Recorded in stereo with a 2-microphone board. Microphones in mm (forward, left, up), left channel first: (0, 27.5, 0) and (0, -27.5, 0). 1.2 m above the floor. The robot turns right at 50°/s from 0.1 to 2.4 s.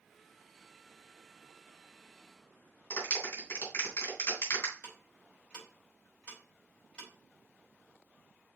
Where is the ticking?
20° left (ahead or behind), 4 m.